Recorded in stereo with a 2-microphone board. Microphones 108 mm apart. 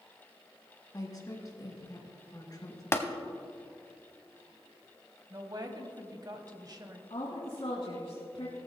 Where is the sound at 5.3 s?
40° right (ahead or behind), 1.2 m.